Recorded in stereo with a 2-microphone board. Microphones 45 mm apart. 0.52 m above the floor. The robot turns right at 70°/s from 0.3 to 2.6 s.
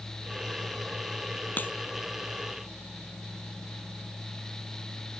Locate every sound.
1.6 s a crack: 45° left (ahead or behind); by 1.7 s 55° left (ahead or behind)